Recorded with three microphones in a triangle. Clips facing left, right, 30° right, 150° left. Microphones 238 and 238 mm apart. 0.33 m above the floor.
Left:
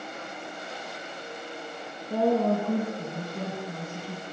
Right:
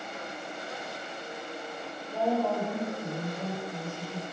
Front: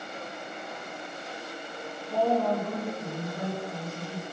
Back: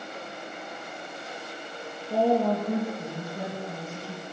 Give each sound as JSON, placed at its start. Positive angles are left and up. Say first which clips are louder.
{"t": 2.1, "sound": "a woman speaking", "louder": "left 5 dB, back 3 dB", "azimuth_deg": 90, "distance_m": 4.5}